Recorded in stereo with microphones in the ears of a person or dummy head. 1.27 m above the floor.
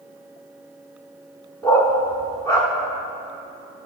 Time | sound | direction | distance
1.6 | a dog barking | 20° left (ahead or behind) | 1.3 m